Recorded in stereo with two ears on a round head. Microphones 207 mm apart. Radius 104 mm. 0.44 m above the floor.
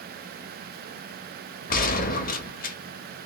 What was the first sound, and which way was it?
A gunshot, 40° left (ahead or behind).